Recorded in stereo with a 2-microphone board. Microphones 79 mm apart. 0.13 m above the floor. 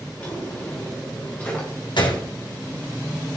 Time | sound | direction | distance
0.2 | a drawer | 15° left (ahead or behind) | 5 m
2.0 | a gunshot | 75° left (ahead or behind) | 2.5 m